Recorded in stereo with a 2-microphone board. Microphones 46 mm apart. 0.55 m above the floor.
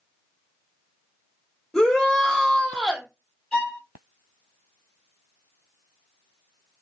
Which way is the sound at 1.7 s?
5° left (ahead or behind).